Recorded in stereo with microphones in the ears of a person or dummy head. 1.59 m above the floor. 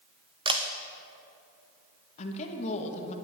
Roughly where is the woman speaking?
Left.